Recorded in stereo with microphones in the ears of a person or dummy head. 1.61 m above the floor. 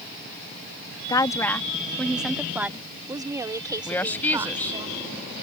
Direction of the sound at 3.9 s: 10° left (ahead or behind).